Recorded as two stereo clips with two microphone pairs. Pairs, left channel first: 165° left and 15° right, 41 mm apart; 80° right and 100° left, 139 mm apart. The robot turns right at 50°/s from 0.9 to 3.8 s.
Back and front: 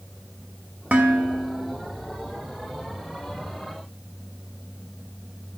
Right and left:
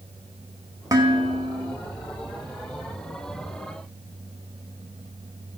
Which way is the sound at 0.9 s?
35° left.